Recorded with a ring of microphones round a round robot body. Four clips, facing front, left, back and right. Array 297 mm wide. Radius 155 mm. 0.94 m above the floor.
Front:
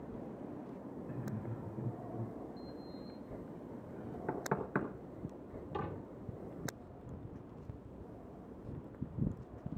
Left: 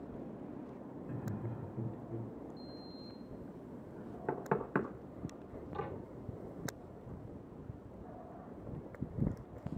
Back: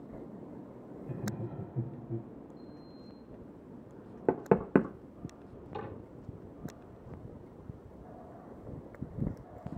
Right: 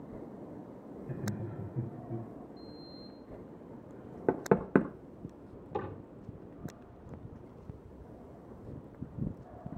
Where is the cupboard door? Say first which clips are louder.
Right 4 dB, even; 75° right, 10 m.